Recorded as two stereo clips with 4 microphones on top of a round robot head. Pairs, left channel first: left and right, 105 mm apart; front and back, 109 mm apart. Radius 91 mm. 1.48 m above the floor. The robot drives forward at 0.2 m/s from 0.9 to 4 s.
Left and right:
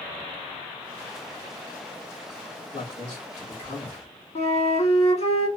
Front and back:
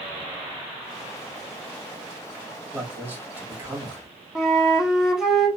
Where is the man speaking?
110° left, 2 m; by 4.1 s 115° left, 2 m.